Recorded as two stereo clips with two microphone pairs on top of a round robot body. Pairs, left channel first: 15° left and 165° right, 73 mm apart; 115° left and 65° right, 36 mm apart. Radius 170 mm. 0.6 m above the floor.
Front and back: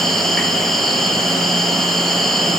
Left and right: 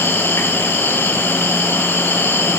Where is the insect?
105° left, 1.3 m.